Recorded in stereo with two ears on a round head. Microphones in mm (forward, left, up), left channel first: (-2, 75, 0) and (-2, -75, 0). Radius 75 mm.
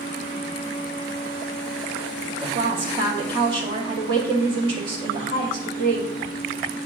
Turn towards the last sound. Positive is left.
turn(degrees=-30)  # may be behind; listen again after turning